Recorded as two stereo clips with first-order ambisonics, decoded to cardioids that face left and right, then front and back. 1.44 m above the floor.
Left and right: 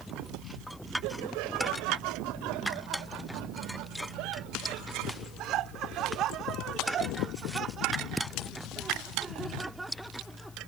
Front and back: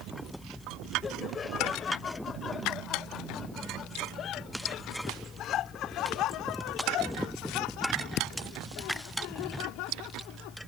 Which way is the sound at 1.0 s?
70° right.